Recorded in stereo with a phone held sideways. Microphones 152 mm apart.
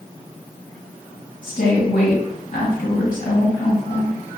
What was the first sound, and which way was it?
A woman speaking, 65° left (ahead or behind).